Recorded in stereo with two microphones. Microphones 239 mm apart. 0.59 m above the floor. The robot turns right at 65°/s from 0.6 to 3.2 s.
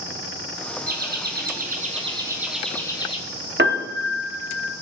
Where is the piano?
50° right (ahead or behind), 1.0 m.